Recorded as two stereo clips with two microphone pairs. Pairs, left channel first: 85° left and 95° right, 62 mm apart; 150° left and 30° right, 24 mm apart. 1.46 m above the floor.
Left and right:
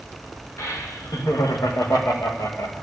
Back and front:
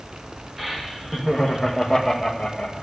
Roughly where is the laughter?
Ahead left.